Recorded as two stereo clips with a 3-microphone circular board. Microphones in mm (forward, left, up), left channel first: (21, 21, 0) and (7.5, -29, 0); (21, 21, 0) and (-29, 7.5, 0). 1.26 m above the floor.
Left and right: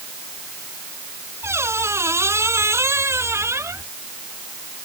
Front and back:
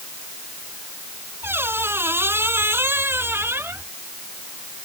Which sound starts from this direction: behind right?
A squeak, at 1.4 s.